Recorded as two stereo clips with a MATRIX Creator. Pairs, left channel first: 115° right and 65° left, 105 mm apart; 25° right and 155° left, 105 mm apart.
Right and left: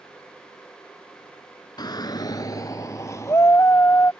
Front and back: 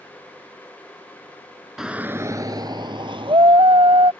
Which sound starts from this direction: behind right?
A shout, at 1.8 s.